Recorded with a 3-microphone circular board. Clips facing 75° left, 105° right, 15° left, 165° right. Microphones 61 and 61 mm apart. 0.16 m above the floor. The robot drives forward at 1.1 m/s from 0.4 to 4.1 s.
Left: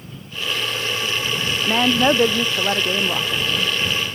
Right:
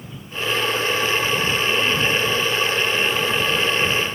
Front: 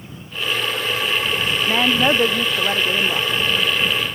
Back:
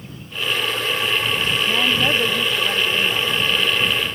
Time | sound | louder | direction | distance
1.6 | a woman speaking | left 8 dB, front 4 dB | 75° left | ?